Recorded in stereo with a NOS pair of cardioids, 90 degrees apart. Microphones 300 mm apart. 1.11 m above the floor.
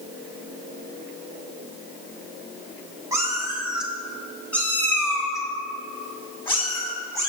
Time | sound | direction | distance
3.1 | a cat meowing | 10° right | 2.0 m